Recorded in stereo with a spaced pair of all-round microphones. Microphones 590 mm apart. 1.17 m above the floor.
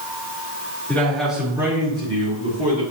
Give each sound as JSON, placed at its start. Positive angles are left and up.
{"t": 0.9, "sound": "a man speaking", "side_deg": 5, "distance_m": 3.0}